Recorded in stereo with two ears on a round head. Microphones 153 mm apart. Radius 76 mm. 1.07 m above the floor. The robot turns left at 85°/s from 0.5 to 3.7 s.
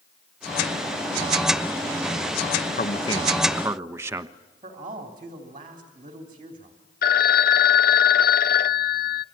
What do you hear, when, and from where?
2.8 s a man speaking: 60° left, 1.2 m; by 4.3 s 15° right, 1.2 m
4.6 s a man speaking: 30° right (ahead or behind), 3.5 m
7.0 s a phone ringing: 60° left (ahead or behind), 0.7 m